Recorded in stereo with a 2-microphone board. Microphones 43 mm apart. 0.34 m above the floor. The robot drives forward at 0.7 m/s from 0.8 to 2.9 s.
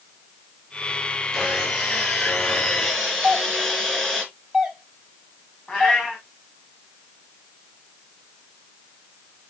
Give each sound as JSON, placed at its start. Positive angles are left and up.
{"t": 1.3, "sound": "sawing", "side_deg": 15, "distance_m": 6.0}
{"t": 3.2, "sound": "a doorbell", "side_deg": -5, "distance_m": 2.5}
{"t": 5.7, "sound": "a cat meowing", "side_deg": 25, "distance_m": 3.5}